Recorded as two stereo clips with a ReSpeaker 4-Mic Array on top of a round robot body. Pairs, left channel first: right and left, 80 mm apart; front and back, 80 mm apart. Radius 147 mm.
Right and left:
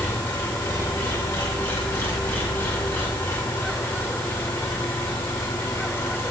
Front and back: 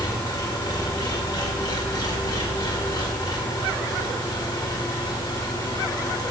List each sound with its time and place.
0.0 s an engine running: 30° right, 1.7 m